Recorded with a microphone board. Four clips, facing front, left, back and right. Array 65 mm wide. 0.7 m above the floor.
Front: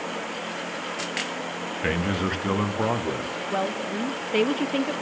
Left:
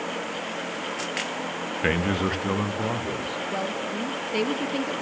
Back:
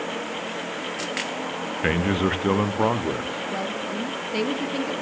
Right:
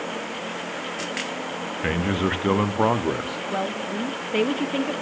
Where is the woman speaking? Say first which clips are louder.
Right 4 dB, front 5 dB; 35° right, 1.0 m.